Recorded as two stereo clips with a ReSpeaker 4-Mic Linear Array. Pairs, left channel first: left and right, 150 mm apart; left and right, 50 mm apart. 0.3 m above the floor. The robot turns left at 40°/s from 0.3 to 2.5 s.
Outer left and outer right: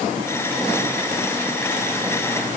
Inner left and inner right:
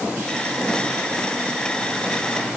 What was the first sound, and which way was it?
Only background noise.